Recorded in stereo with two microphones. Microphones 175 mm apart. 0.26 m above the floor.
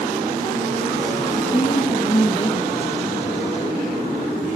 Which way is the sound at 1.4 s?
30° left (ahead or behind).